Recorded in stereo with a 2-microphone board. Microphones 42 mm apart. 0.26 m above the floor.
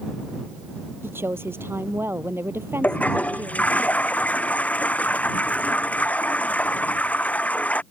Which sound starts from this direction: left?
A toilet flushing, at 2.8 s.